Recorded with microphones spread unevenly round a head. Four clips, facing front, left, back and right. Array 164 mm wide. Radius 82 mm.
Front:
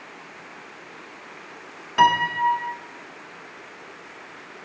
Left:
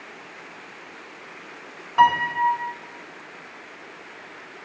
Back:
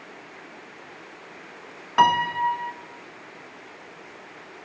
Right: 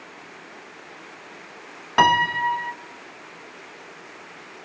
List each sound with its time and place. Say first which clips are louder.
2.0 s a piano: left 1 dB, front 1 dB; 80° right, 0.9 m